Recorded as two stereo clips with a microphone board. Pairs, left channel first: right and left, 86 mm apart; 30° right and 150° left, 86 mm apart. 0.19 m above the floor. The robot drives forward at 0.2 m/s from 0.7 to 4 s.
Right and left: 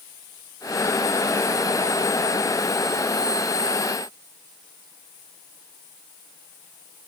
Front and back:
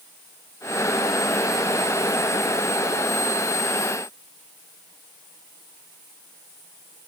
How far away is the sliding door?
No sliding door in this recording.